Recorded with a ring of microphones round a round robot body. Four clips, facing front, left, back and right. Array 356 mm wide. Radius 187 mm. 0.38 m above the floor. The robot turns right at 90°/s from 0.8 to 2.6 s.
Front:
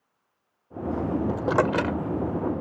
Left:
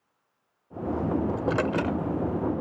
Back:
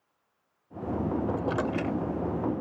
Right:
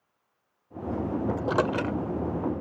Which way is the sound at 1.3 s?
45° right.